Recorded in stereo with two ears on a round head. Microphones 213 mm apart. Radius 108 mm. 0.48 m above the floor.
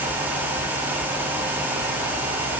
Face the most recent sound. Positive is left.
No sound to turn to.